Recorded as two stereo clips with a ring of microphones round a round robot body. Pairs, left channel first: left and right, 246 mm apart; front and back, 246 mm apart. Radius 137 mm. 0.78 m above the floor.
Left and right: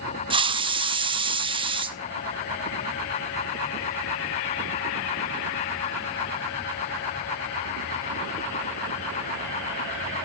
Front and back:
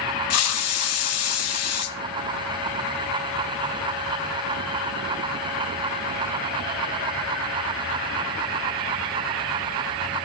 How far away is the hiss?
About 0.9 m.